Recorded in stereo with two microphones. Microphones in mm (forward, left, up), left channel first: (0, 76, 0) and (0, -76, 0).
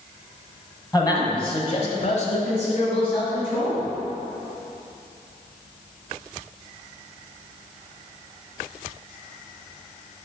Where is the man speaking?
25° left (ahead or behind), 1.8 m; by 3.9 s 30° left (ahead or behind), 3 m.